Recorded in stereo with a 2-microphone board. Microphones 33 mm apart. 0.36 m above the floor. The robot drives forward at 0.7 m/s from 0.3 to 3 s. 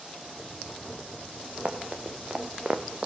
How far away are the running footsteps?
About 3.5 m.